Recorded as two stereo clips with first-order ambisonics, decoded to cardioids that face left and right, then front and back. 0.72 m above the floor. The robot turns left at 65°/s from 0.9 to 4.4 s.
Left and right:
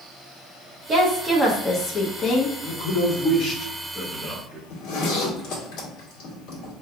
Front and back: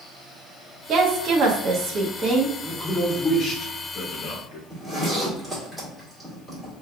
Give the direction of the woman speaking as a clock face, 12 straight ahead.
5 o'clock.